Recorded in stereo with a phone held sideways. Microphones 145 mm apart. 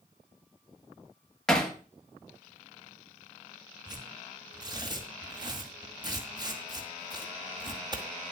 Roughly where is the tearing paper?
Right.